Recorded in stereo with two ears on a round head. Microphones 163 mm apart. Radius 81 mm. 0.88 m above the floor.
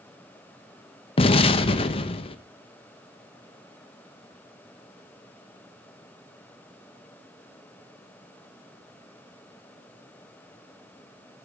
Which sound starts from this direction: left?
An explosion, at 1.2 s.